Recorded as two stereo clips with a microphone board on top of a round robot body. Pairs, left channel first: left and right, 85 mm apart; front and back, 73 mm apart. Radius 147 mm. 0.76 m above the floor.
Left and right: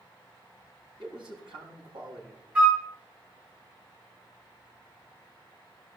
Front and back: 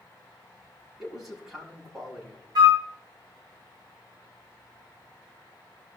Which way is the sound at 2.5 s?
165° right.